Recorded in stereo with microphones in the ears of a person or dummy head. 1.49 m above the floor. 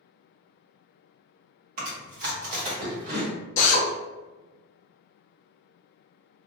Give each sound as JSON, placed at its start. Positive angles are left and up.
{"t": 1.8, "sound": "chewing", "side_deg": -40, "distance_m": 1.3}
{"t": 3.6, "sound": "a drill", "side_deg": 35, "distance_m": 0.6}